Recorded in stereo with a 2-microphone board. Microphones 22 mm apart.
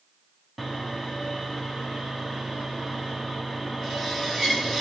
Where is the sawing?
10° right (ahead or behind), 1.7 m.